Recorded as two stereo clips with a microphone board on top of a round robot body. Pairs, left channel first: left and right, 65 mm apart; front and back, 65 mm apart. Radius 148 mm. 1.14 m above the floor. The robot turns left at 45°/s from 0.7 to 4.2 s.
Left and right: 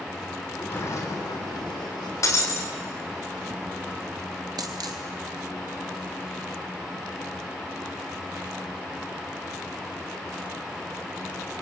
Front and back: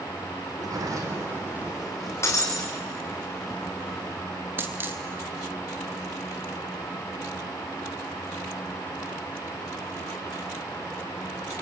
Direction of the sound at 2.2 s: 50° left.